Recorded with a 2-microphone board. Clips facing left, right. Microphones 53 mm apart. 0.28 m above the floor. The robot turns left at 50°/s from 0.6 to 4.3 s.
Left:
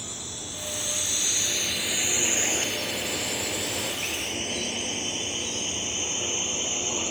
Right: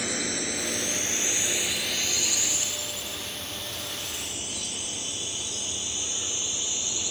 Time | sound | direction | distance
0.0 | a drone | 65° right (ahead or behind) | ?